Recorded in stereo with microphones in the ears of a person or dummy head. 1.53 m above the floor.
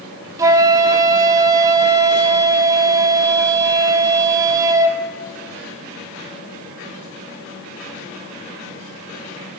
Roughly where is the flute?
Centre.